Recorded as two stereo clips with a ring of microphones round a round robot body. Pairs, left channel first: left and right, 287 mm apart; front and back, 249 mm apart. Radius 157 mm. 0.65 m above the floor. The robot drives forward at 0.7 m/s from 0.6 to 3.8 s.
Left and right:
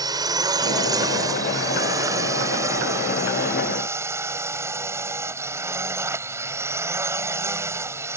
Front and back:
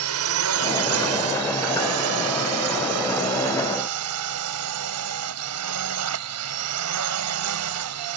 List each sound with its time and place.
0.0 s a drone: 165° right; by 8.2 s 170° right